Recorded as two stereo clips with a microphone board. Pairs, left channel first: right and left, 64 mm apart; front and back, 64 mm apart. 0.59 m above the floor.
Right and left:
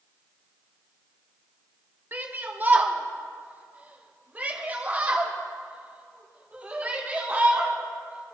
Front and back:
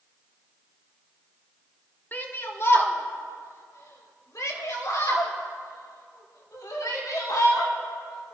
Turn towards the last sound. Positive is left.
turn(degrees=20)